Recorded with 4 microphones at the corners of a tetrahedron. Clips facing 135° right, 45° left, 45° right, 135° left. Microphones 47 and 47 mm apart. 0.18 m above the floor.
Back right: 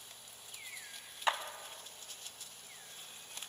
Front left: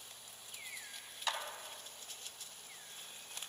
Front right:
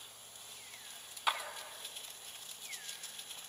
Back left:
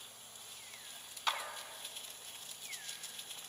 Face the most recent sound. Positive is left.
turn(degrees=-115)